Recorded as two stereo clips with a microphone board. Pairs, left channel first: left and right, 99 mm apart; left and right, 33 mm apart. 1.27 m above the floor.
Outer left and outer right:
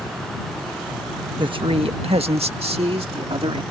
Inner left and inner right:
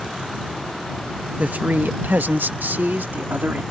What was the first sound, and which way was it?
A man speaking, 55° right (ahead or behind).